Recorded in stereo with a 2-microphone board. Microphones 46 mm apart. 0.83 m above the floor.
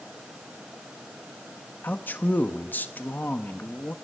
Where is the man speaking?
45° left (ahead or behind), 1.4 m.